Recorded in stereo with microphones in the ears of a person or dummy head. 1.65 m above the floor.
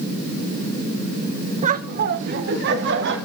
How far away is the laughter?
About 1.1 m.